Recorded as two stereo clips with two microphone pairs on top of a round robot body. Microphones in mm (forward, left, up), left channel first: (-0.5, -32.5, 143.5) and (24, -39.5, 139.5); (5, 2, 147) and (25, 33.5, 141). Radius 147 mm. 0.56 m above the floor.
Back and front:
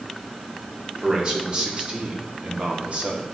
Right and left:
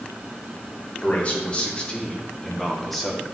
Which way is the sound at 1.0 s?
65° right.